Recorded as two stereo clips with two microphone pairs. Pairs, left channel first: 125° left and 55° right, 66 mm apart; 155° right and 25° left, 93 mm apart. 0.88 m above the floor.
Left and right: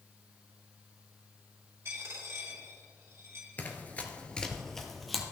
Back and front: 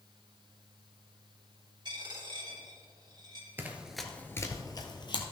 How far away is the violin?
No violin in this recording.